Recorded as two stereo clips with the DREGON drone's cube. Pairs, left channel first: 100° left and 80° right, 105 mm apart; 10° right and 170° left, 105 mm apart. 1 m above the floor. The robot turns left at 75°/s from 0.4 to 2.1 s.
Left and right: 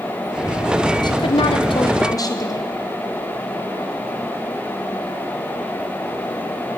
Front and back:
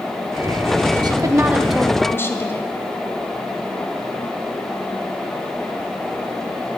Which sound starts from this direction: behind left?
A woman speaking, at 1.0 s.